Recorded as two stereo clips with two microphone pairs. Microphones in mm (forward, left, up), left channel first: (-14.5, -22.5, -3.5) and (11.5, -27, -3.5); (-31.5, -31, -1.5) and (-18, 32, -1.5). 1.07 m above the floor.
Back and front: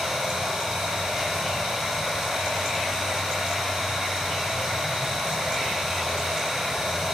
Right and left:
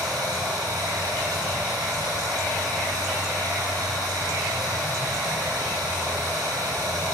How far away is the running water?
About 8 m.